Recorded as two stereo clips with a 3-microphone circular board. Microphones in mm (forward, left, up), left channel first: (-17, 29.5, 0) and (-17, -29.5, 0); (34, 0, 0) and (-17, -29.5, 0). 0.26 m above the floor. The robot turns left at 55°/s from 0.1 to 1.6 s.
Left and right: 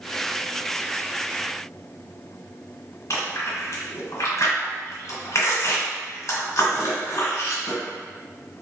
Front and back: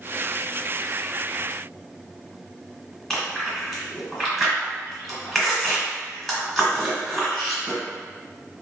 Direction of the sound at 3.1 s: 115° left.